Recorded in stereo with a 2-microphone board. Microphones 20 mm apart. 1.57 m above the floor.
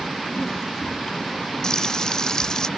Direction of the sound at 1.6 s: 35° left (ahead or behind).